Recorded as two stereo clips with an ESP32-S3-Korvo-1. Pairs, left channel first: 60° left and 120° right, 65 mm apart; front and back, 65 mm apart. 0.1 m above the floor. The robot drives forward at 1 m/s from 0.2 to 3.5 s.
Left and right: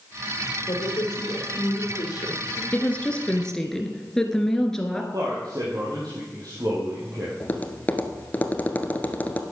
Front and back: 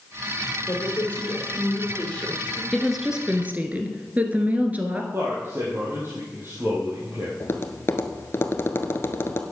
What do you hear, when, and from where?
0.7 s a woman speaking: 55° left, 5.5 m; by 2.6 s 75° left, 5 m
2.7 s a woman speaking: 80° left, 1.5 m; by 5.0 s 135° left, 1.7 m
5.1 s a man speaking: 130° right, 4 m
7.4 s tapping: 10° left, 1.1 m